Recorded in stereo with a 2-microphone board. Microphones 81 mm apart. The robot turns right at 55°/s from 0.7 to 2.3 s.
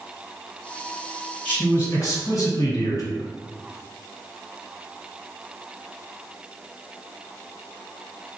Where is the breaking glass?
No breaking glass in this recording.